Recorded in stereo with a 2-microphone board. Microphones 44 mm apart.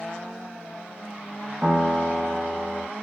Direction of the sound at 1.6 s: 25° right (ahead or behind).